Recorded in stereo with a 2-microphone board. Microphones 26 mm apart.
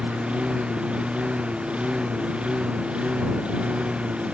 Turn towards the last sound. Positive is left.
turn(degrees=-40)  # may be behind; listen again after turning